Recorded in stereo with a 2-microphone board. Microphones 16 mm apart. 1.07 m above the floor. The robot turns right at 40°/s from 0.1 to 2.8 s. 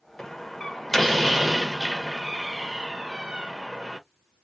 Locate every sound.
0.2 s a door slam: 135° left, 0.8 m; by 4.0 s 120° right, 0.8 m